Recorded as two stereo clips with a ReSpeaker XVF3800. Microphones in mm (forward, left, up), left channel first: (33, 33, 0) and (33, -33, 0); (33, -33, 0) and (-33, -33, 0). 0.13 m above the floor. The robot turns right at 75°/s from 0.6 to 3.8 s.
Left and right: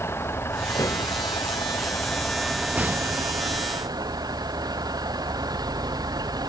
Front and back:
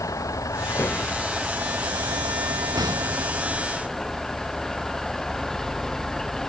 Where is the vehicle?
35° left; by 6.5 s 85° right.